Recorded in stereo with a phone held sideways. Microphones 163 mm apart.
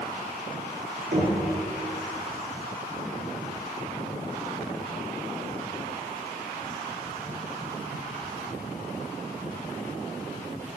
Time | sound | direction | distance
1.1 | knocking | 85° right | 5.5 m